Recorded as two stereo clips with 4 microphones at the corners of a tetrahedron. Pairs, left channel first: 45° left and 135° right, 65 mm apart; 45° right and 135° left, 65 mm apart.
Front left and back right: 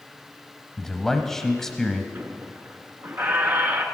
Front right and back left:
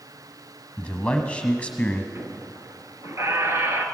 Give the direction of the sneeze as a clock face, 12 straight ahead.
No sneeze in this recording.